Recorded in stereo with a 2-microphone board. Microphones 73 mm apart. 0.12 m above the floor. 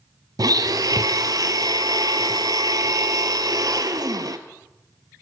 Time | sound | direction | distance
0.4 | a blender | 65° right (ahead or behind) | 0.7 m